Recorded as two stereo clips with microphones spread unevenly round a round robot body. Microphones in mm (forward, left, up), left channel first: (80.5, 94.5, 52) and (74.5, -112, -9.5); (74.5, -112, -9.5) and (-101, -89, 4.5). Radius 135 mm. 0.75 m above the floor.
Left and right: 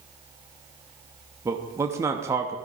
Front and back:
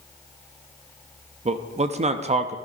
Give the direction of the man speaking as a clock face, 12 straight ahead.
5 o'clock.